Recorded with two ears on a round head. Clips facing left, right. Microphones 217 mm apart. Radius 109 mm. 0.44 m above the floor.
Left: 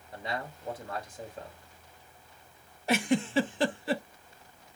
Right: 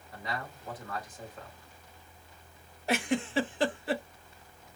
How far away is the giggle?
About 0.5 m.